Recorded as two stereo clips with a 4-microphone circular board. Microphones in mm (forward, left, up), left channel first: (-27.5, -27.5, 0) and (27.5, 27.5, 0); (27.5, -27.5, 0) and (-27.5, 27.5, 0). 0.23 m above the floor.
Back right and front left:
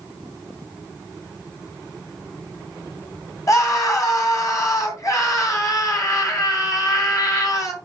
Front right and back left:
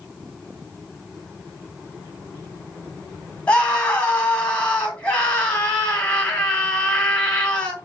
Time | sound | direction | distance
3.5 | a scream | 110° right | 1.9 m